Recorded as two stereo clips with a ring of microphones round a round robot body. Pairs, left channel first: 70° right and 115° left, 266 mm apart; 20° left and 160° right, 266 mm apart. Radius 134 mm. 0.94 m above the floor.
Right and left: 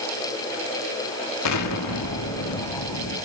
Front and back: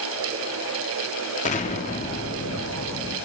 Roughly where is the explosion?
Ahead right.